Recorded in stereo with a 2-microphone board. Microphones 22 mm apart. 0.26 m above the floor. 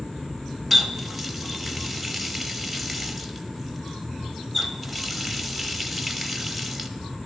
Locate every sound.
0.7 s a running tap: centre (ahead or behind), 0.7 m